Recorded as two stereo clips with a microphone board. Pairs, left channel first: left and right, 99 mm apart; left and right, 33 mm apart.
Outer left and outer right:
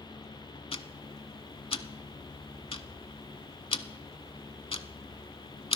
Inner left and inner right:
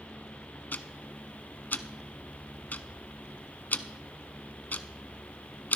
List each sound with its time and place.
0.7 s ticking: 70° left (ahead or behind), 0.7 m